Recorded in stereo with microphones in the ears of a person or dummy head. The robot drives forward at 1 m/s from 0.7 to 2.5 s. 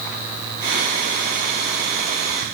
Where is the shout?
No shout in this recording.